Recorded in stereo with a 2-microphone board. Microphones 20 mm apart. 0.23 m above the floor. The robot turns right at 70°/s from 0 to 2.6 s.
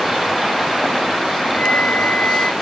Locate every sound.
1.5 s a flute: 60° left; by 2.5 s 130° left